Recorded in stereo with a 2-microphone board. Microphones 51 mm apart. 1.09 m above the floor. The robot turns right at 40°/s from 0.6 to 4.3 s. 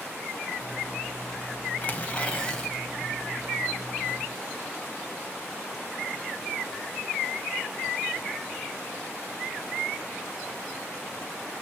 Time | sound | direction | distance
1.8 | tearing paper | 125° left | 1.1 m